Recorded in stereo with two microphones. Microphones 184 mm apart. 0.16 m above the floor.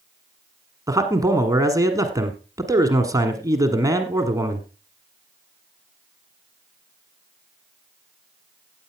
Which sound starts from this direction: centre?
A man speaking, at 0.9 s.